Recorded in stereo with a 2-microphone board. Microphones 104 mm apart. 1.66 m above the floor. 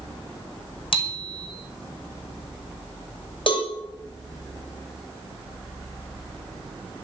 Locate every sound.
0.9 s a bicycle bell: 55° left (ahead or behind), 5.5 m
3.5 s a cowbell: 55° left (ahead or behind), 6 m